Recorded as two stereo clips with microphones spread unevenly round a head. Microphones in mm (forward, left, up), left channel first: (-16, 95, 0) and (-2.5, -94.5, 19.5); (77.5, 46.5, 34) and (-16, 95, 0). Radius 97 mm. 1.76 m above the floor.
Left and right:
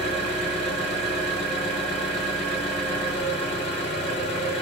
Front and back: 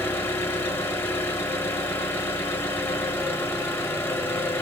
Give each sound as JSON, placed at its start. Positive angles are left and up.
{"t": 0.0, "sound": "an engine running", "azimuth_deg": 30, "distance_m": 0.9}